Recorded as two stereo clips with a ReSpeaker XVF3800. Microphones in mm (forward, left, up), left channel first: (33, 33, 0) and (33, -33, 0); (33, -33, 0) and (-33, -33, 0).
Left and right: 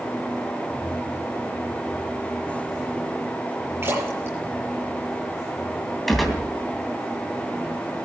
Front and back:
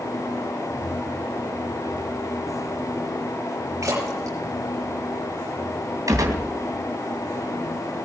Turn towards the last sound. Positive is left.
turn(degrees=180)